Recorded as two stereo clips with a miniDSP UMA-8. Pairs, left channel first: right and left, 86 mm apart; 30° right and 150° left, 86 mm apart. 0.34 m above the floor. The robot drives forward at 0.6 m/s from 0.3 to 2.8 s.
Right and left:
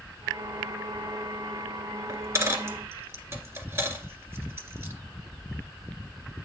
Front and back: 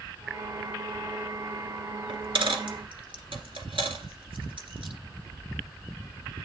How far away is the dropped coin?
About 1.7 m.